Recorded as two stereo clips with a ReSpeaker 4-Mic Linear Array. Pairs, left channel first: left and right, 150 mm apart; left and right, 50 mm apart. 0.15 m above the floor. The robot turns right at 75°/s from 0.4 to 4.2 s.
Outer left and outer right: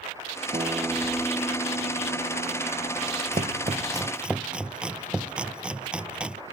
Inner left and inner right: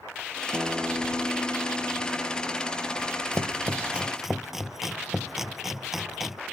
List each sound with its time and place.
0.5 s a guitar: 45° right; by 3.2 s 160° left
3.3 s chopping: 65° right (ahead or behind); by 6.4 s 5° right (ahead or behind)